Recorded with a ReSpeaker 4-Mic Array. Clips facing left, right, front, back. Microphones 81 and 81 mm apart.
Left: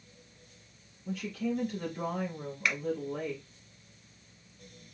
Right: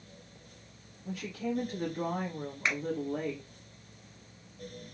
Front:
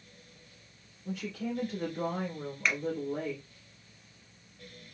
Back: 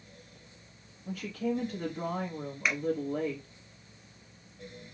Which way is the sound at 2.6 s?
105° right.